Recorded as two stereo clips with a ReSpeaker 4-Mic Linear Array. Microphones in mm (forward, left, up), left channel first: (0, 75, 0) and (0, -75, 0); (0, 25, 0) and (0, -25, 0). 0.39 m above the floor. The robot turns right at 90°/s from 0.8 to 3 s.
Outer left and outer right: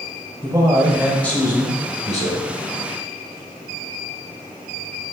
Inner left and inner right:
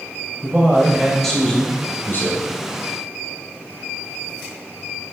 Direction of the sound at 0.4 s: 30° right.